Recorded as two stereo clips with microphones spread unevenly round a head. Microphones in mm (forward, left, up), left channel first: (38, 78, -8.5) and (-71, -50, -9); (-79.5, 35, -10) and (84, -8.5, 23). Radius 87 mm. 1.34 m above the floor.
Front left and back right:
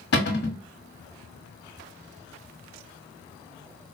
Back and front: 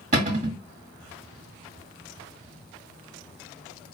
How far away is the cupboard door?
About 1.3 m.